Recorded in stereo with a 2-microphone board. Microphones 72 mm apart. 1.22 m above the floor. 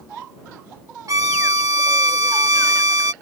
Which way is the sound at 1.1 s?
50° right (ahead or behind).